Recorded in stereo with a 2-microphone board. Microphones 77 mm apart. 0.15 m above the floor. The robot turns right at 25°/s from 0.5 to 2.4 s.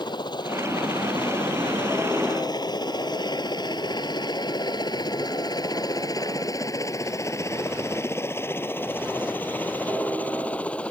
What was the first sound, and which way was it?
A helicopter, 70° left (ahead or behind).